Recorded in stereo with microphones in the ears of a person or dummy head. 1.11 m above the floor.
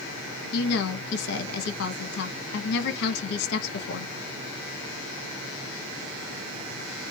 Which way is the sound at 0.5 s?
60° left (ahead or behind).